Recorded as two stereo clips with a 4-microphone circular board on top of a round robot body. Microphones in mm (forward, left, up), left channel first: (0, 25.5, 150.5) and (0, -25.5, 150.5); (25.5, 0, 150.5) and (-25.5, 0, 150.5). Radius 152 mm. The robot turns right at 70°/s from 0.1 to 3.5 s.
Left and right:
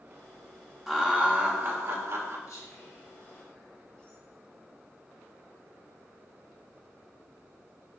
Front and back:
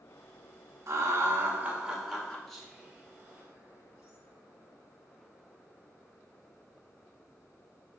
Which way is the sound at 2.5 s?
85° left.